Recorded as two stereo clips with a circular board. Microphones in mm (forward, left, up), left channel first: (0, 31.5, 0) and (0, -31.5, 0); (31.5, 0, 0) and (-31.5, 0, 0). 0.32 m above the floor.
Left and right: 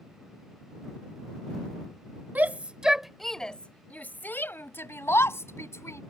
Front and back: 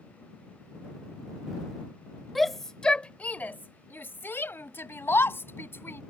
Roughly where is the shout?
Right.